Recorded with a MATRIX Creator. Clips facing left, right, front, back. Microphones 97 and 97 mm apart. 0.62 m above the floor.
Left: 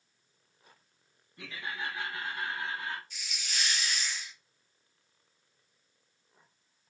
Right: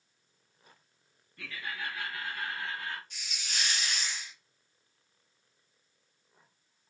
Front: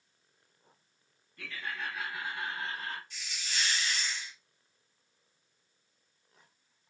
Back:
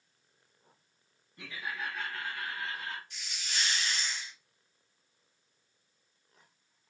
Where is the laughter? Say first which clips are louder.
Left 1 dB, even; 135° left, 0.8 m; by 3.0 s 25° left, 0.9 m.